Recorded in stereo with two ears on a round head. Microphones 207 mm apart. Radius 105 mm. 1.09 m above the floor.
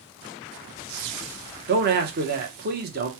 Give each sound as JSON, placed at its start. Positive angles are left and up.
{"t": 1.7, "sound": "a man speaking", "side_deg": -40, "distance_m": 0.9}